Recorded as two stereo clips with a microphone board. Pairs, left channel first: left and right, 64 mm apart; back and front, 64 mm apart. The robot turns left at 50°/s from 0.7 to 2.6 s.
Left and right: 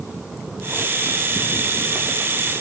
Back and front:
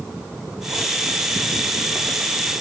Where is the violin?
No violin in this recording.